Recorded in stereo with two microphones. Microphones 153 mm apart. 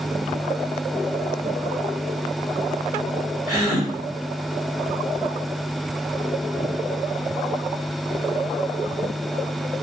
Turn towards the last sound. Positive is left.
turn(degrees=-35)  # may be behind; listen again after turning